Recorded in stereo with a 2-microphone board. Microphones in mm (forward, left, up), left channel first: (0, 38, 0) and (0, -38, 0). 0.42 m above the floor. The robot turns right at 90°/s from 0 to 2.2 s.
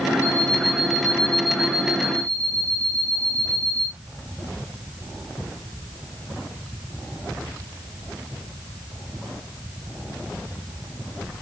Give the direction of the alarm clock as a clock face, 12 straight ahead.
7 o'clock.